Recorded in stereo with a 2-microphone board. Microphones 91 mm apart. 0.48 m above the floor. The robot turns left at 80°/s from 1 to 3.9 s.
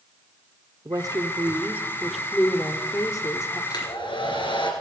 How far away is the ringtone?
No ringtone in this recording.